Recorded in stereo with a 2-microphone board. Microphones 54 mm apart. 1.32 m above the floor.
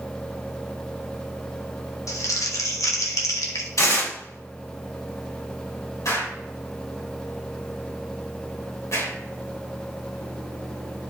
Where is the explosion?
70° left (ahead or behind), 3.5 m.